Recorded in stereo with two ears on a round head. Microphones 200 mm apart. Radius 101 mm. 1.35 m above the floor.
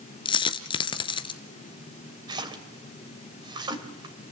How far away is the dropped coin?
About 1.5 m.